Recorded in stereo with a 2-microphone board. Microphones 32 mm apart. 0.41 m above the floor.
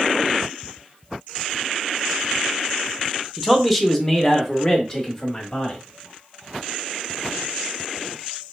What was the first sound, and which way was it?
A man speaking, 5° right (ahead or behind).